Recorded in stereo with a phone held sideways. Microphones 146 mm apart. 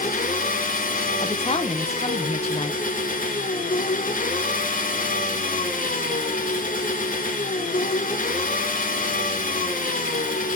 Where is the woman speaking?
45° left (ahead or behind), 1.1 m.